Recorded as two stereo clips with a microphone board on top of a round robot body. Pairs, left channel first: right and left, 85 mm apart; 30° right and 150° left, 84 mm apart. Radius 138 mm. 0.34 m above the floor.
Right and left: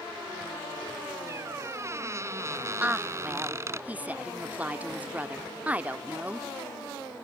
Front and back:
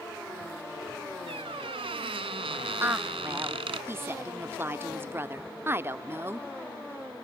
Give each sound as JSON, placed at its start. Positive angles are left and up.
{"t": 1.3, "sound": "a squeak", "azimuth_deg": 150}
{"t": 2.8, "sound": "a woman speaking", "azimuth_deg": 140}